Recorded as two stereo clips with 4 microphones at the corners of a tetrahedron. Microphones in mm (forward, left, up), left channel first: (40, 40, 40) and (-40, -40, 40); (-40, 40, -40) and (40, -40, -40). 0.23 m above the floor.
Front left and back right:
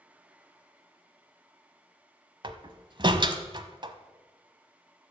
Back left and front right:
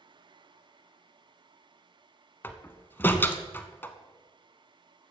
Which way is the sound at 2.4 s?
160° right.